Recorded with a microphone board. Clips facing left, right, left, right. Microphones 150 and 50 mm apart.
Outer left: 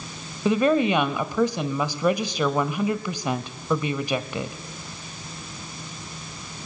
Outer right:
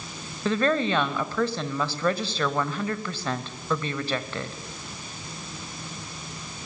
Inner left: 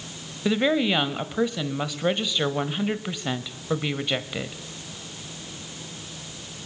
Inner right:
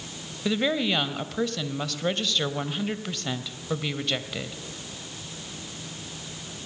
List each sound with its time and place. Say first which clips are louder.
0.5 s a woman speaking: outer left 4 dB, inner left 3 dB; 15° left (ahead or behind), 1.1 m